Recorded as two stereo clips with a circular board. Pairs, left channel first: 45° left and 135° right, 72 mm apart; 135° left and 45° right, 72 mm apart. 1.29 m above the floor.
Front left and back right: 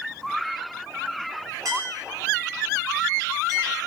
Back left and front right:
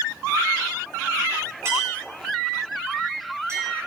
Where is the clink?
95° right, 8.5 m.